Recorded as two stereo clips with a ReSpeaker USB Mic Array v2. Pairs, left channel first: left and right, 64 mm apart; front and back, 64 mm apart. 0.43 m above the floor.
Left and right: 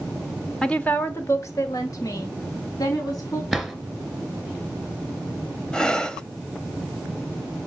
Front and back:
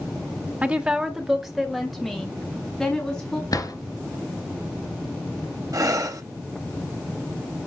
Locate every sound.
0.6 s a woman speaking: 155° left, 1.2 m; by 3.4 s 80° left, 4 m
3.5 s a drawer: 5° left, 1.7 m
5.7 s breathing: 165° left, 1.0 m